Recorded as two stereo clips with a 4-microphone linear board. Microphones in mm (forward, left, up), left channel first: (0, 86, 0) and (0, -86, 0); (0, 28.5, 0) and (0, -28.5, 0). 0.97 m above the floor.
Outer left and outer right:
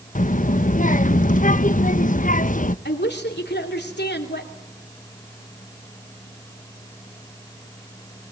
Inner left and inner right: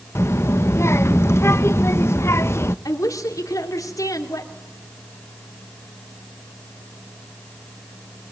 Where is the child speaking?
50° left (ahead or behind), 0.5 m.